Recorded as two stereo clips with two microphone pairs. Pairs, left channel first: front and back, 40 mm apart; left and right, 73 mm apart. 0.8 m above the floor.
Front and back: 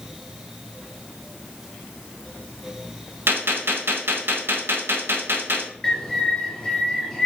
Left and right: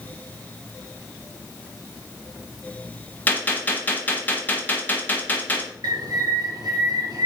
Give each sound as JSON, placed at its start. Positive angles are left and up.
{"t": 3.3, "sound": "a gunshot", "azimuth_deg": 160, "distance_m": 0.8}
{"t": 5.8, "sound": "a bird", "azimuth_deg": -75, "distance_m": 0.9}